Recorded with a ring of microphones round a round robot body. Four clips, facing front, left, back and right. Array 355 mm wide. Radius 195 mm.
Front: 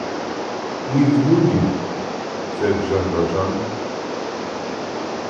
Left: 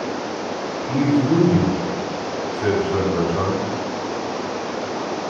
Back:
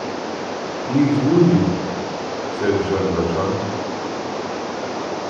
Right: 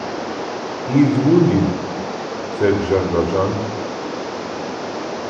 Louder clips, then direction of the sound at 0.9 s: Right 4 dB, front 1 dB; 95° right.